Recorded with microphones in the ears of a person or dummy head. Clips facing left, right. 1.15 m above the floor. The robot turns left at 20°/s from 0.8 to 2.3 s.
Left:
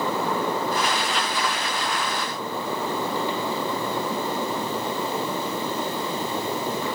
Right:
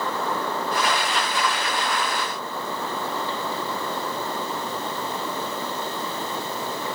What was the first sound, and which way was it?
Only background noise.